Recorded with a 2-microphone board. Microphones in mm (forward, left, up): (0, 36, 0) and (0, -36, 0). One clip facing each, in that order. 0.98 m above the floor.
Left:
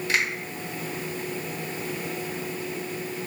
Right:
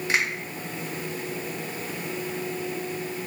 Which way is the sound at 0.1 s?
20° right (ahead or behind).